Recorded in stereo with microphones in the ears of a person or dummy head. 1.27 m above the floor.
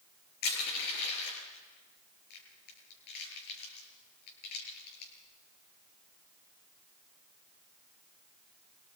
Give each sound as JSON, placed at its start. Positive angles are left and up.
{"t": 0.4, "sound": "crushing", "side_deg": 60, "distance_m": 8.5}